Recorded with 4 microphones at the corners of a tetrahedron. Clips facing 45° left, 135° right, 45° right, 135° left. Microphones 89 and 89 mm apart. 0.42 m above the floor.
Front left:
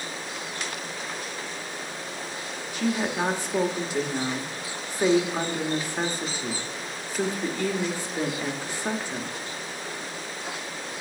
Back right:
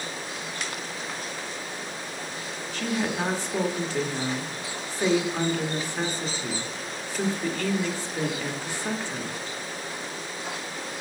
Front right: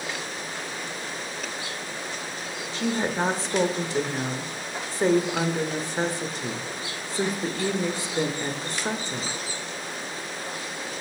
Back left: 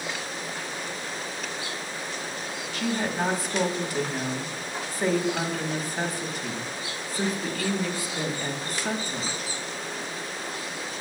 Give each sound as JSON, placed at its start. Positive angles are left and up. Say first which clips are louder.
{"t": 2.7, "sound": "a woman speaking", "louder": "front left 2 dB, front right 2 dB", "azimuth_deg": -15, "distance_m": 1.2}